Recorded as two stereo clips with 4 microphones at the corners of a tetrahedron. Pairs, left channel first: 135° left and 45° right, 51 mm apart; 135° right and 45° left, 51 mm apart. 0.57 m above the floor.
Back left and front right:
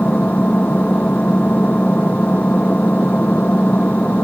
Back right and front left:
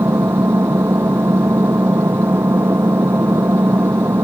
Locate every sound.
0.0 s an engine running: 75° left